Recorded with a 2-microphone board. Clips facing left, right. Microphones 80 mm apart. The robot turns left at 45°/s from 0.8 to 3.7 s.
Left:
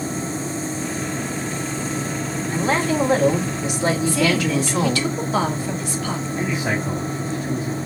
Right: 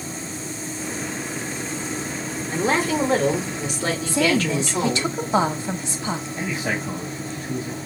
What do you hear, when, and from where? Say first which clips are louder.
2.5 s a woman speaking: left 1 dB; 145° right, 1.5 m; by 5.1 s 160° left, 1.5 m
4.1 s a woman speaking: left 1 dB; 25° right (ahead or behind), 0.9 m
6.4 s a man speaking: left 3 dB; 10° left (ahead or behind), 2.5 m